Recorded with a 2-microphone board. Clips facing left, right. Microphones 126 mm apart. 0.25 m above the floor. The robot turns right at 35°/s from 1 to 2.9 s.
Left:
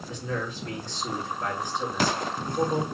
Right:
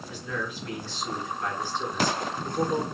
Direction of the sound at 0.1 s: 140° left.